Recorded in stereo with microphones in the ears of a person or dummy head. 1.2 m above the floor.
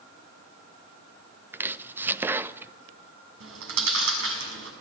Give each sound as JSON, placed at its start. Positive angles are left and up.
{"t": 1.5, "sound": "chopping", "side_deg": -10, "distance_m": 0.6}
{"t": 3.4, "sound": "chewing", "side_deg": -85, "distance_m": 6.0}